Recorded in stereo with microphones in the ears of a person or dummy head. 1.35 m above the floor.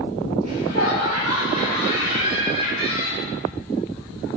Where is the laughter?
85° right, 3.5 m; by 3.3 s 70° right (ahead or behind), 6 m.